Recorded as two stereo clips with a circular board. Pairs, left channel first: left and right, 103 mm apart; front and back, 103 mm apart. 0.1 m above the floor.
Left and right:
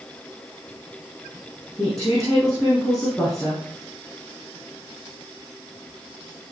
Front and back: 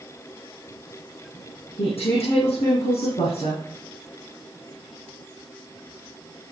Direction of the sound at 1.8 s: 10° left.